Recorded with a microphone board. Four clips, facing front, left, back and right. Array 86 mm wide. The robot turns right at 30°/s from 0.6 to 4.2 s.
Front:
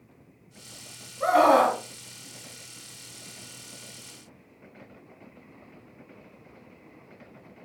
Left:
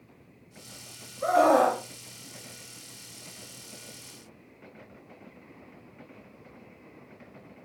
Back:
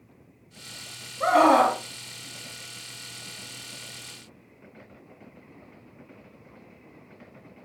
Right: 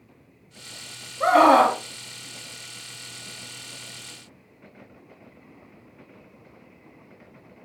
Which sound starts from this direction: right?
A scream, at 1.2 s.